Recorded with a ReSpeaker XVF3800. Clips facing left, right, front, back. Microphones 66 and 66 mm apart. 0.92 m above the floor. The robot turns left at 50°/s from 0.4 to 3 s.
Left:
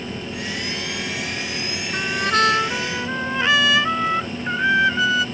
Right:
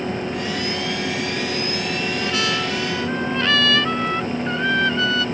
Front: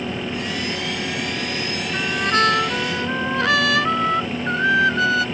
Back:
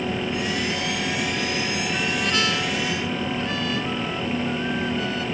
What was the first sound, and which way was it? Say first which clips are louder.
A trumpet: left 7 dB, front 7 dB; 70° left.